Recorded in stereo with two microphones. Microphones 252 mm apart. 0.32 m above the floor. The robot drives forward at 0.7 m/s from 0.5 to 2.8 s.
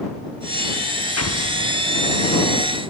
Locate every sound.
1.2 s an explosion: 85° left, 1.7 m; by 1.9 s 75° left (ahead or behind), 1.7 m